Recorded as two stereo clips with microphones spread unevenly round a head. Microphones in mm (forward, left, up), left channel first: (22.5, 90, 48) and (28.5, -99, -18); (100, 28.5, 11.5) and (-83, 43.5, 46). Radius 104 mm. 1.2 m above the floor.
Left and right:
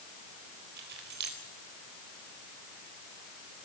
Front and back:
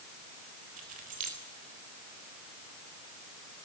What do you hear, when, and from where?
0.8 s keys jangling: 130° right, 4 m